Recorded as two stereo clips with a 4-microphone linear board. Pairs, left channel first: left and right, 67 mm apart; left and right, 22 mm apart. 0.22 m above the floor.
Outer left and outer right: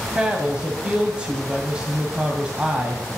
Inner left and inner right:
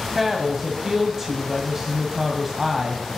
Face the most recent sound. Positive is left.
turn(degrees=-15)  # may be behind; listen again after turning